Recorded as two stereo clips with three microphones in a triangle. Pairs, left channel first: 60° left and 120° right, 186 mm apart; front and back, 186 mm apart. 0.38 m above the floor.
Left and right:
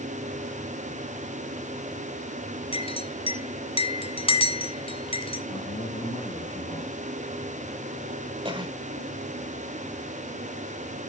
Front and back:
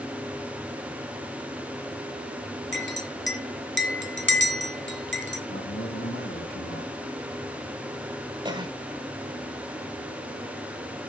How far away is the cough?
About 1.6 m.